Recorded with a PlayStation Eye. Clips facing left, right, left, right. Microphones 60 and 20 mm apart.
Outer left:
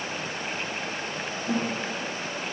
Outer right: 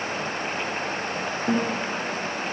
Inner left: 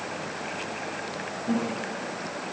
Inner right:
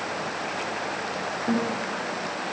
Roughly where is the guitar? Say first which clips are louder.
Outer right 4 dB, inner right 2 dB; right.